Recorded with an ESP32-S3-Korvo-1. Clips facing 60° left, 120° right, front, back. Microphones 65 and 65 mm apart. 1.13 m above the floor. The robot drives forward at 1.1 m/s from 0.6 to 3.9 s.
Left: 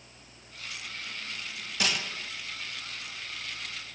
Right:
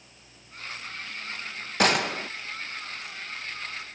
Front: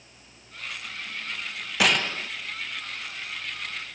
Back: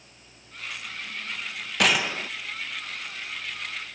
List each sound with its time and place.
1.8 s a gunshot: 85° right; by 2.3 s 115° right